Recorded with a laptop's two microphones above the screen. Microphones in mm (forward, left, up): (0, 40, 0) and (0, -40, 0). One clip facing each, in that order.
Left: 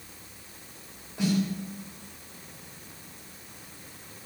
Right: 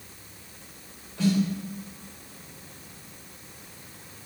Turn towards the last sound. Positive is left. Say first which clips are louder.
# right 3 dB
turn(degrees=15)  # may be behind; listen again after turning